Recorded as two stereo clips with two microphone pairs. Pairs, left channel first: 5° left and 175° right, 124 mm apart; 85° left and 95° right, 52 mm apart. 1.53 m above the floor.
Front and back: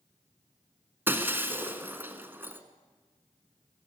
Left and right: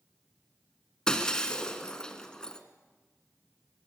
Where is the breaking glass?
150° left, 1.5 m.